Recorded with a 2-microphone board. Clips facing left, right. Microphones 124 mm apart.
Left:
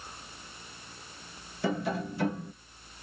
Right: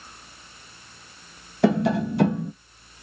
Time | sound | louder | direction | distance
1.6 | tapping | right 10 dB | 75° right (ahead or behind) | 0.7 m